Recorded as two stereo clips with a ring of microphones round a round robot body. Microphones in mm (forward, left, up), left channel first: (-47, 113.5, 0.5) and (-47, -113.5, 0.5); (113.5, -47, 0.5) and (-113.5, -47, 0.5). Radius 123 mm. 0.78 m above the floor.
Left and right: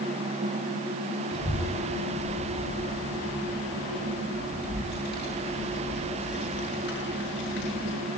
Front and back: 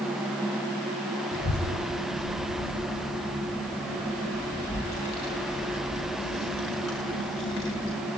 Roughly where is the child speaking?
Ahead.